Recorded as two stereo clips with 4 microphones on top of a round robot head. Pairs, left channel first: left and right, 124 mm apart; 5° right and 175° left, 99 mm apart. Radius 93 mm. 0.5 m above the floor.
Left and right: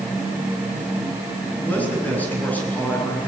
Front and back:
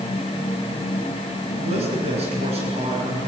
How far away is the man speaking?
About 7.5 m.